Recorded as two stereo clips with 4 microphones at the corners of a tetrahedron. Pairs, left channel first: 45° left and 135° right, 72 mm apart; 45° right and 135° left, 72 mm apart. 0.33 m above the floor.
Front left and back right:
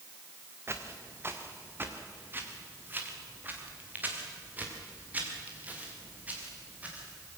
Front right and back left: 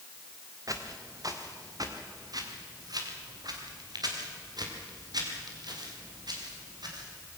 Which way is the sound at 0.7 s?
170° left.